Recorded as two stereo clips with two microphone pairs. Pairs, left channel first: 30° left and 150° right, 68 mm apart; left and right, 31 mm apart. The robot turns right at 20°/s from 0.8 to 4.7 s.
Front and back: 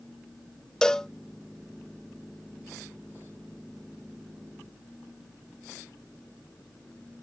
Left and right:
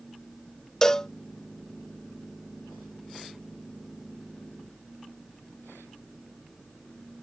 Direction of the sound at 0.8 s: 95° left.